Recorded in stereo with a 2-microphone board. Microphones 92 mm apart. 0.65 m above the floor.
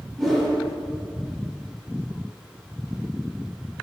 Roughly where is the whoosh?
Centre.